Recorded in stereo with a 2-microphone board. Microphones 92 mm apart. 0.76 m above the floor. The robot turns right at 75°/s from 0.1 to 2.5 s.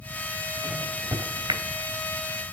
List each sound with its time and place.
0.6 s a microwave: 5° left (ahead or behind), 2.5 m; by 1.6 s 70° right (ahead or behind), 2.5 m